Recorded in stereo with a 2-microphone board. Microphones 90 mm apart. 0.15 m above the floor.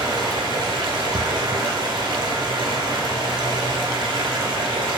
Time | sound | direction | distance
0.0 | running water | 65° right (ahead or behind) | 0.9 m